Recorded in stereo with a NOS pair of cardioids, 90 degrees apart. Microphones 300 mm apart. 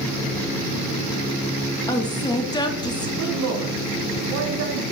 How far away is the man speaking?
About 1.8 m.